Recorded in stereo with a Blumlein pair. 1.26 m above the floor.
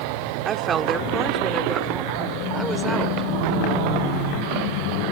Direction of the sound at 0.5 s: 25° right.